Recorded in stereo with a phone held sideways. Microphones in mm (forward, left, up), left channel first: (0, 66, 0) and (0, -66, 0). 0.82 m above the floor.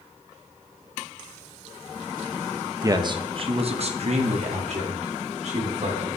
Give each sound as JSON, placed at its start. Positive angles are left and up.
{"t": 2.8, "sound": "a man speaking", "side_deg": -25, "distance_m": 0.6}